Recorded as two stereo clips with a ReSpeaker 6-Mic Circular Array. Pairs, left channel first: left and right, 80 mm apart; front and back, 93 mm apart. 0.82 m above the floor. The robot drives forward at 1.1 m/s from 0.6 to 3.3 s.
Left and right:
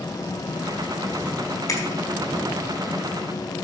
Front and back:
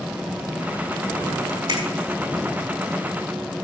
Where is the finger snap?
140° left, 5.5 m.